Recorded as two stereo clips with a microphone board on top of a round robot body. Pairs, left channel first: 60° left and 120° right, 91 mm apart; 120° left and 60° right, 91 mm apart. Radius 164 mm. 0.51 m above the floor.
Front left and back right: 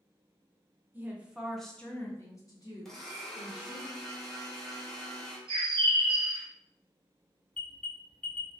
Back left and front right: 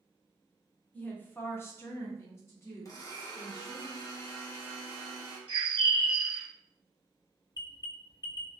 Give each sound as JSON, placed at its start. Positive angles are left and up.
{"t": 0.9, "sound": "a woman speaking", "azimuth_deg": 180, "distance_m": 0.9}
{"t": 2.9, "sound": "a blender", "azimuth_deg": 145, "distance_m": 1.0}
{"t": 5.5, "sound": "a bird", "azimuth_deg": -85, "distance_m": 0.6}
{"t": 7.5, "sound": "an alarm", "azimuth_deg": 130, "distance_m": 0.8}